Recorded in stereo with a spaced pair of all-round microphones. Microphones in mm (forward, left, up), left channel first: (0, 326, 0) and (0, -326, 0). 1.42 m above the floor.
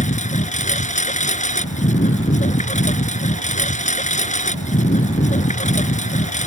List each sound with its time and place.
0.0 s a lawn mower: 10° left (ahead or behind)